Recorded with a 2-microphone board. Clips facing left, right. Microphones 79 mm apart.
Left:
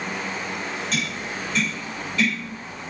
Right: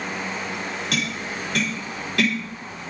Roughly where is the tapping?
Right.